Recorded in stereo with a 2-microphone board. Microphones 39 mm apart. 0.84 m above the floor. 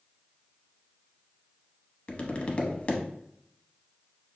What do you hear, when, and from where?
2.1 s tapping: 30° left (ahead or behind), 0.7 m